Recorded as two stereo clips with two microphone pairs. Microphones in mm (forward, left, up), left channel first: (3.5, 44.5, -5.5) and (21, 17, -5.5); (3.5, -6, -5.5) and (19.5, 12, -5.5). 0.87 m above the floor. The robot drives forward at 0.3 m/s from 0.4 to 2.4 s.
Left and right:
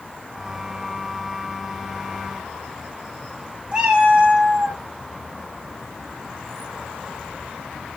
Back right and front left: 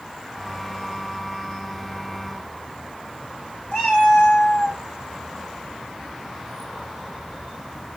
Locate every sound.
3.7 s a cat meowing: 110° right, 1.5 m